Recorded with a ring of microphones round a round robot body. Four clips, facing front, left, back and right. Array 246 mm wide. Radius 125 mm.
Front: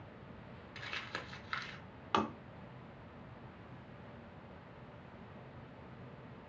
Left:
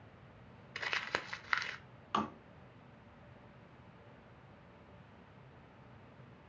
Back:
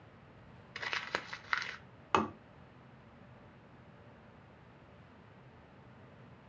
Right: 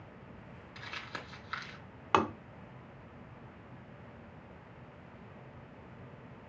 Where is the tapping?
105° right, 0.7 m.